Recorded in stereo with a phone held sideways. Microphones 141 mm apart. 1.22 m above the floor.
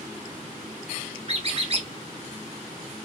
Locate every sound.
1.3 s a squeak: 45° right (ahead or behind), 0.7 m